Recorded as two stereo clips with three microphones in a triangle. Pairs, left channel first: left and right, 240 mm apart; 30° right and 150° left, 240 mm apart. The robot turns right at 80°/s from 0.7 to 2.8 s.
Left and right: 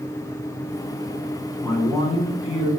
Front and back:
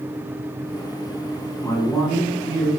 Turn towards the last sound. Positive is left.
turn(degrees=115)